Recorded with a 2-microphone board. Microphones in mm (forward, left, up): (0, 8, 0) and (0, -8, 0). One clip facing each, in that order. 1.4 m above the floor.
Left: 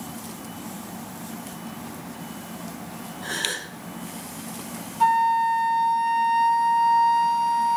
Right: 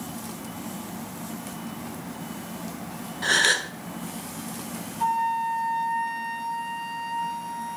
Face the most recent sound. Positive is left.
turn(degrees=40)  # may be behind; listen again after turning